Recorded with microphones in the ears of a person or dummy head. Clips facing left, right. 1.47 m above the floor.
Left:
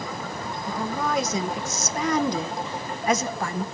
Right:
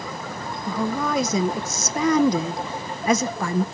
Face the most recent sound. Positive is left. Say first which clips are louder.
# right 3 dB
turn(degrees=-75)  # may be behind; listen again after turning